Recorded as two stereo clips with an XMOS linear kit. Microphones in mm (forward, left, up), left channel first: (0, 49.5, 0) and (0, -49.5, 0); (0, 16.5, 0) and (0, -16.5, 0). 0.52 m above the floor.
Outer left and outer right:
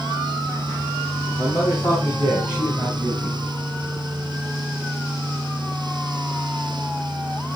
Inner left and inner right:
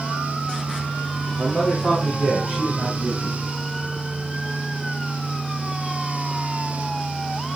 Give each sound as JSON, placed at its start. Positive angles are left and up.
{"t": 1.4, "sound": "a man speaking", "side_deg": 45, "distance_m": 3.5}